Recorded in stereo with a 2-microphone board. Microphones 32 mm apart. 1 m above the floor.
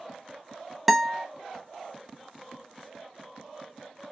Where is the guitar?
10° right (ahead or behind), 0.5 m.